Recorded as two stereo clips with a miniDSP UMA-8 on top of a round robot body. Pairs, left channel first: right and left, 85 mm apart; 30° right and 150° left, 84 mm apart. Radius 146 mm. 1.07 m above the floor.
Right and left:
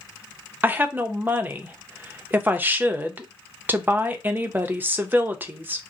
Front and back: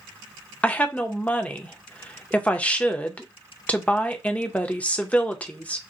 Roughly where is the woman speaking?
Ahead left.